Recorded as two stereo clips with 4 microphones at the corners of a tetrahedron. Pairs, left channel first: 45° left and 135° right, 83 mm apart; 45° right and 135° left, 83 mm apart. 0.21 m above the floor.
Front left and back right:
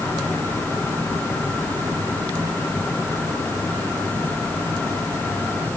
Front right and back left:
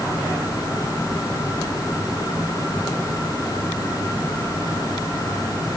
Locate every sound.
Only background noise.